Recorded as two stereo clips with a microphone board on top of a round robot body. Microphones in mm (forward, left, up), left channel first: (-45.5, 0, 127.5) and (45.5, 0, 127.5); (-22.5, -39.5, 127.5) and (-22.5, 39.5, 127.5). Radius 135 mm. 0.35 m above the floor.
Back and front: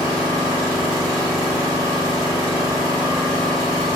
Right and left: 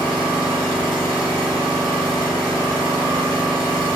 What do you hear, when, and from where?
0.0 s an engine running: 80° left, 1.3 m